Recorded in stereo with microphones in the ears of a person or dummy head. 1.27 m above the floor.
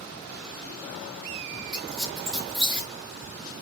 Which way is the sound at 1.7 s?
Centre (ahead or behind).